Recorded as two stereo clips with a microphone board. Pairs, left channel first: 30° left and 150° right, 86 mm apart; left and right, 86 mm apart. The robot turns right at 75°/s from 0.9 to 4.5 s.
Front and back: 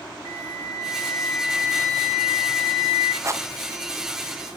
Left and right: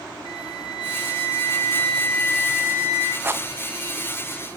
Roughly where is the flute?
Left.